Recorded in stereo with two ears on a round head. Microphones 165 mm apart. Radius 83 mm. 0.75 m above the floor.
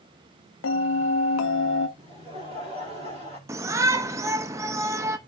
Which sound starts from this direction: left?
A bell, at 0.6 s.